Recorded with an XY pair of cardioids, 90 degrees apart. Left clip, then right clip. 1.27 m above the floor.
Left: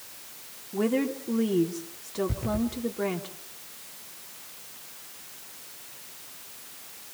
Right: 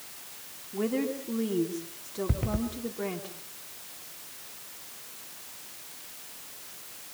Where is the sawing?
I don't hear sawing.